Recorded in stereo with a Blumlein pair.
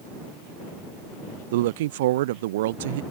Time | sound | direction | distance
1.5 | a woman speaking | 55° right | ?